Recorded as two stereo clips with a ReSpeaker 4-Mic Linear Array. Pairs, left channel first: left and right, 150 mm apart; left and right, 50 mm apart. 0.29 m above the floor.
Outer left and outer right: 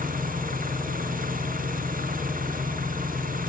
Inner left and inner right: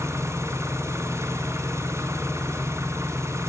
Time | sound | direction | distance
0.0 | an engine running | 65° right (ahead or behind) | 2 m